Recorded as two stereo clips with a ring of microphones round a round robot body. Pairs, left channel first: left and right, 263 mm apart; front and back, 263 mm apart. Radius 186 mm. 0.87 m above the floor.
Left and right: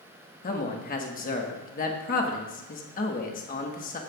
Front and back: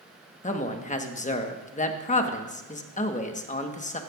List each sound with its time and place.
0.4 s a man speaking: 45° left, 1.2 m